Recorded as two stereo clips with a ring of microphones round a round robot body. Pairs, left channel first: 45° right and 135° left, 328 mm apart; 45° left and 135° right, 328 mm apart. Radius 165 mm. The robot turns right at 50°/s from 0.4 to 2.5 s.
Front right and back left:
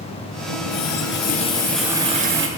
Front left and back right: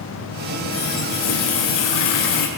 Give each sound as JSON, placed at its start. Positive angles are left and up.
{"t": 0.5, "sound": "a running tap", "azimuth_deg": -20, "distance_m": 6.0}